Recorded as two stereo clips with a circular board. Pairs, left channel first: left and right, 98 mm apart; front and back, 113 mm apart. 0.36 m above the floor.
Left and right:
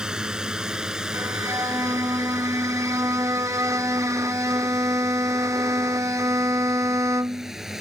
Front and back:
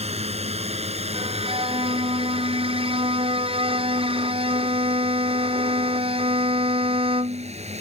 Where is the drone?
170° right; by 7.8 s 175° right.